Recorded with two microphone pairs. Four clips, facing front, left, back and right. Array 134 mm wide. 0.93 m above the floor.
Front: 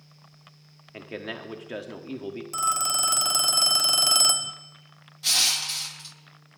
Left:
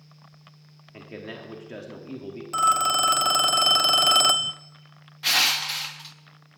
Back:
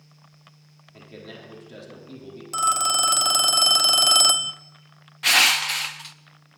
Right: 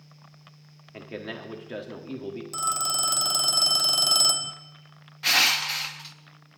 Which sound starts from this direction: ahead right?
A man speaking, at 0.9 s.